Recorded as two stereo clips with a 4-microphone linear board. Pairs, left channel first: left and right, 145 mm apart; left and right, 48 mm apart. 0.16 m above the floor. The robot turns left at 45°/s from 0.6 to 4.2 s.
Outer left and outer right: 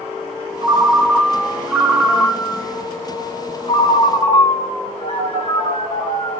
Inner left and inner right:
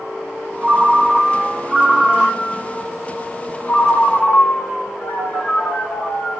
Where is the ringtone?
130° right, 0.7 m; by 6.4 s 70° left, 0.7 m.